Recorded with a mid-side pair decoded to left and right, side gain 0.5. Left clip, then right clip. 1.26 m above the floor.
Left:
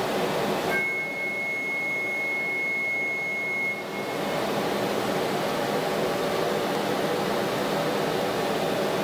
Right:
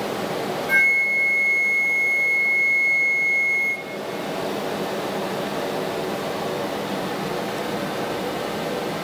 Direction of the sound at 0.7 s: 55° right.